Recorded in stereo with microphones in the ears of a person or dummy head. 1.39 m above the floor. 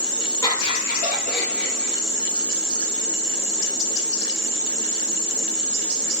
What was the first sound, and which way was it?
Laughter, 20° left (ahead or behind).